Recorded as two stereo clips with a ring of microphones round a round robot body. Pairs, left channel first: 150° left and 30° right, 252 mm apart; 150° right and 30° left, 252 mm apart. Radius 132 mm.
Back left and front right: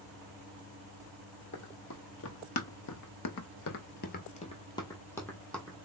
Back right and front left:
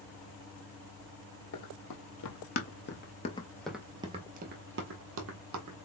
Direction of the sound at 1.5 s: 165° right.